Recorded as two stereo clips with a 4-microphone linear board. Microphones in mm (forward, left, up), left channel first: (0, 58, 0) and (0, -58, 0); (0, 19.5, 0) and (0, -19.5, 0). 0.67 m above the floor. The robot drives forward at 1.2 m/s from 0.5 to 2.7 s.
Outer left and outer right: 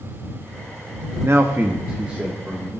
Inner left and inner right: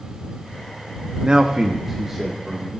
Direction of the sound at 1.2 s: 25° right (ahead or behind).